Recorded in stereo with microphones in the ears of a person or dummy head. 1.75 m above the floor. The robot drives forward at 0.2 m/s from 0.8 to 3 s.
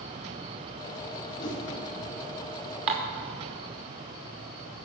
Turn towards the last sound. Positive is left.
turn(degrees=-35)  # may be behind; listen again after turning